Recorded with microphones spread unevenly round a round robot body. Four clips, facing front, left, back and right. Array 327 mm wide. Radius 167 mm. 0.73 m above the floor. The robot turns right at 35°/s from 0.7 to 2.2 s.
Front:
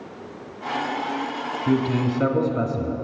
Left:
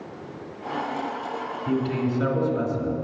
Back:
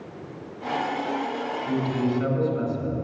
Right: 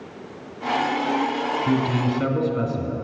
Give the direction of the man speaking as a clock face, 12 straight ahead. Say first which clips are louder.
Even, front 4 dB; 1 o'clock.